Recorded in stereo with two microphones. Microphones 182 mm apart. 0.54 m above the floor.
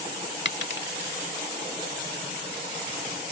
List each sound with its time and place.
0.5 s a dropped coin: 80° left